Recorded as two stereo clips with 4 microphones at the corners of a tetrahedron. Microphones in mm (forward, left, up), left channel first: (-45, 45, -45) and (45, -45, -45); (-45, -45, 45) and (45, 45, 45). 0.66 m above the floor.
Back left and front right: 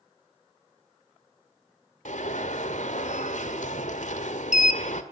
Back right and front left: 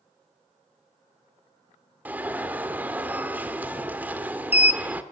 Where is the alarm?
120° left, 1.7 m.